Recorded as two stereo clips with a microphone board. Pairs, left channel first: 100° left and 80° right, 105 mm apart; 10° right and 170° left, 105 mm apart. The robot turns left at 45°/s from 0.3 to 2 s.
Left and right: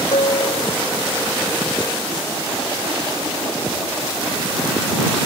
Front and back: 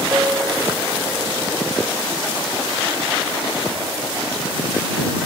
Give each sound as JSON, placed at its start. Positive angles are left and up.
{"t": 0.1, "sound": "a piano", "azimuth_deg": 100}